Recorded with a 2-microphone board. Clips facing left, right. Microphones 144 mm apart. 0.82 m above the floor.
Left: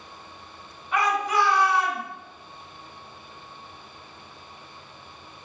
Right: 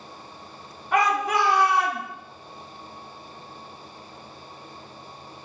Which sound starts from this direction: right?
A shout, at 0.9 s.